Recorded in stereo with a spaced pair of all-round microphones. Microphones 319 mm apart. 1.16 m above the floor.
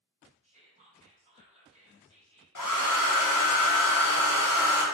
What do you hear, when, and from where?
0.4 s whispering: 20° right (ahead or behind), 1.3 m
2.5 s a hair dryer: 75° left (ahead or behind), 0.7 m